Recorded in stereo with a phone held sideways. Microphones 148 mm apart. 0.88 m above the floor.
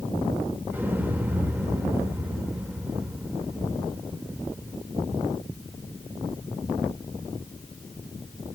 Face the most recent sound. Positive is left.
turn(degrees=-10)  # may be behind; listen again after turning